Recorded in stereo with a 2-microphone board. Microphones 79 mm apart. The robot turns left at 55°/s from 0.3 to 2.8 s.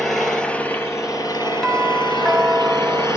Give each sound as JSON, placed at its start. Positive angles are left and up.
{"t": 0.0, "sound": "an engine running", "azimuth_deg": 175, "distance_m": 4.0}
{"t": 1.6, "sound": "a doorbell", "side_deg": 5, "distance_m": 1.3}